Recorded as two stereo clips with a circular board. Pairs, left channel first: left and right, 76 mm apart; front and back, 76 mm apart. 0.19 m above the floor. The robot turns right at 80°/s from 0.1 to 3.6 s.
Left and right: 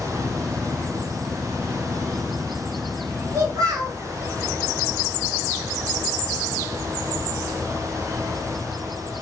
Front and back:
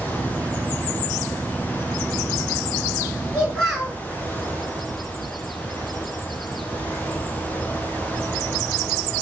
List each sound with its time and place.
3.3 s a child speaking: 110° right, 1.7 m; by 4.0 s 90° right, 1.7 m